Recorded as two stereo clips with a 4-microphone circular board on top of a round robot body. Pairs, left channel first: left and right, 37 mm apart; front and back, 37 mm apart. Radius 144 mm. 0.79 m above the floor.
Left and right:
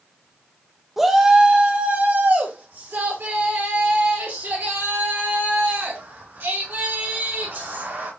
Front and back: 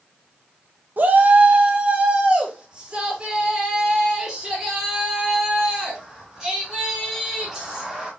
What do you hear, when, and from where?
1.0 s a shout: 170° right, 0.9 m; by 8.1 s 95° right, 5.5 m